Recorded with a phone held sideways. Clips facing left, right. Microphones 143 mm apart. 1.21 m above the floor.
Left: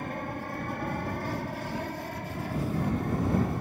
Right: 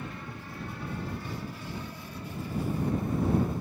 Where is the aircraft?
55° left (ahead or behind); by 3.6 s 65° left (ahead or behind).